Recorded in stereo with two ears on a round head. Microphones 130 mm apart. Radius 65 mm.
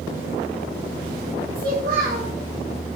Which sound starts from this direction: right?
A child speaking, at 1.6 s.